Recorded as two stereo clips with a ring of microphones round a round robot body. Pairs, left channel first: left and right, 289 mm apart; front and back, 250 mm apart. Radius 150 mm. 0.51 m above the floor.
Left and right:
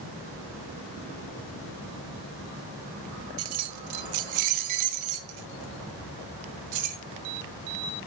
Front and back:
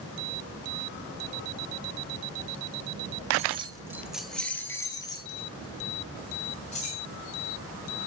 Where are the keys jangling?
120° right, 0.8 m; by 7.0 s 65° right, 2.5 m.